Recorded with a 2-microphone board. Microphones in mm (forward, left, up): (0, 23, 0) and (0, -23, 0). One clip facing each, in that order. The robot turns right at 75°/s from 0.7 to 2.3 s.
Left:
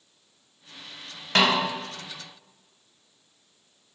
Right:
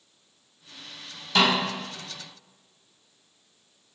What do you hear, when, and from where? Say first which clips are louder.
1.4 s a snare drum: left 1 dB; 55° left (ahead or behind), 2.5 m; by 1.6 s 60° left (ahead or behind), 2.5 m